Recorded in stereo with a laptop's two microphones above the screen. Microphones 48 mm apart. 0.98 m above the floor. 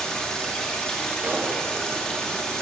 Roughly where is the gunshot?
Right.